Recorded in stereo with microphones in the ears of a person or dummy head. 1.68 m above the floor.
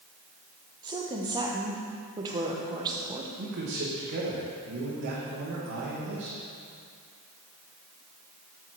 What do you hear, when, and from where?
0.8 s a woman speaking: 20° right (ahead or behind), 1.2 m
3.4 s a man speaking: 55° right (ahead or behind), 1.8 m